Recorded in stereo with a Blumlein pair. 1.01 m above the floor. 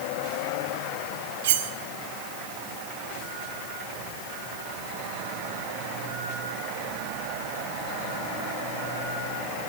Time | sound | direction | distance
1.4 | cutlery clinking | 55° right | 1.4 m